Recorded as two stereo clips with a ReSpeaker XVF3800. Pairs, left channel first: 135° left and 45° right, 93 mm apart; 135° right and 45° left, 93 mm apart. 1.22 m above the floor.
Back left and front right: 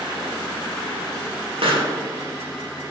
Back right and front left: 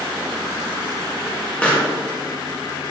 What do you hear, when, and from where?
1.6 s a pop: 55° right, 1.9 m